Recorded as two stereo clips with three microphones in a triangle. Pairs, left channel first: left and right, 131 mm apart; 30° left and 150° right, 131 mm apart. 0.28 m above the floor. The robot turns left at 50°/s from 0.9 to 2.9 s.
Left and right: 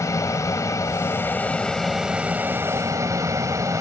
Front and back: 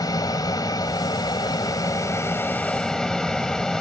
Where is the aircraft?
50° left; by 3.8 s 50° right.